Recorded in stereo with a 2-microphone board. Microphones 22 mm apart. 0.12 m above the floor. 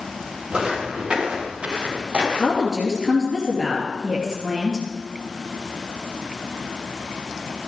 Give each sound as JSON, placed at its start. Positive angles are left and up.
{"t": 0.5, "sound": "footsteps", "side_deg": -40, "distance_m": 5.0}
{"t": 2.3, "sound": "a woman speaking", "side_deg": -30, "distance_m": 3.0}